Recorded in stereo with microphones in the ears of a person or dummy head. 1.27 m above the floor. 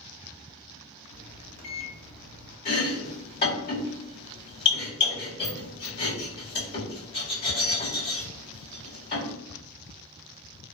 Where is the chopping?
55° left (ahead or behind), 1.4 m.